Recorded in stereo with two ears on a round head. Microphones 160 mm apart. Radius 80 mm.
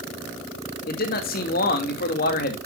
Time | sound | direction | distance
0.9 | a man speaking | 55° left (ahead or behind) | 2.5 m